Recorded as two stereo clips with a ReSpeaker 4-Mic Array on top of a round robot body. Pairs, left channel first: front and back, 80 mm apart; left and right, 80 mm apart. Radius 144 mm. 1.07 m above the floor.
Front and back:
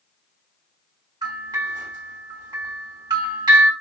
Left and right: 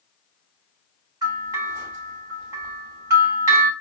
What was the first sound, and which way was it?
A bell, 140° right.